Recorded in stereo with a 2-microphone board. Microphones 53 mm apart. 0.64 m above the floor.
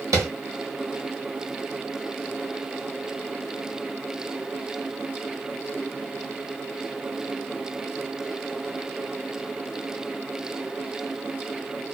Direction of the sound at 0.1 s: 85° right.